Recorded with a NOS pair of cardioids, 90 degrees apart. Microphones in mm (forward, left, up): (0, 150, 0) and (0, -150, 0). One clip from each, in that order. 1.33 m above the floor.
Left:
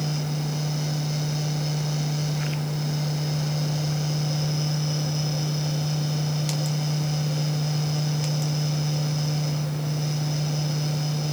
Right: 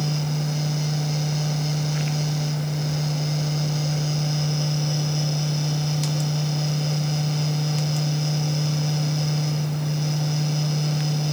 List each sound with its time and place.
0.0 s a fan: 20° right